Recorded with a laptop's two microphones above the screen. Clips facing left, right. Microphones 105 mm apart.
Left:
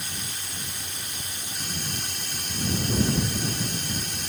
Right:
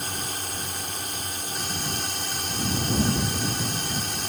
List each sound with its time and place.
0.0 s a drone: 45° right (ahead or behind)